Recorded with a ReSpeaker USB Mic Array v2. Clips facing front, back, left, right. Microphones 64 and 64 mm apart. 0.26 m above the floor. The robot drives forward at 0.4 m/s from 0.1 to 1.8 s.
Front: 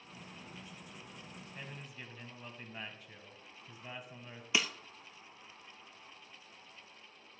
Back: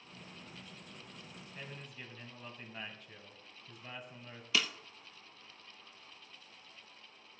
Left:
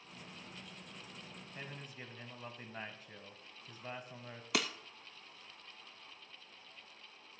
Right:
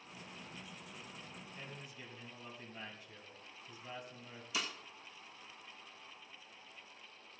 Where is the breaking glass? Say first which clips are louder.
Front 1 dB, left 5 dB; 70° left, 0.8 m.